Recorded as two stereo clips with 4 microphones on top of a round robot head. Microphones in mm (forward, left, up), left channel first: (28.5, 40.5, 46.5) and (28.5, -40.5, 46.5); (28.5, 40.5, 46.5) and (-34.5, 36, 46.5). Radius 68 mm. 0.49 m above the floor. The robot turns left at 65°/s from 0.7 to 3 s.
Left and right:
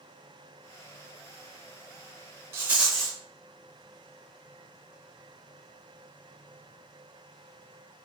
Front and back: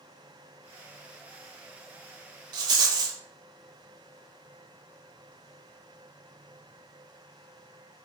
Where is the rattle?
155° right, 0.7 m; by 3.2 s 175° left, 0.7 m.